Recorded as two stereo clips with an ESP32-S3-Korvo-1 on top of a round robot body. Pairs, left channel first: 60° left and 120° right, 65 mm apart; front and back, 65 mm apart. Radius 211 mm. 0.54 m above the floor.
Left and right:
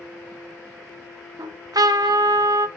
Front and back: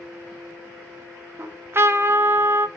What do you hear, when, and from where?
1.4 s a trumpet: 130° right, 1.0 m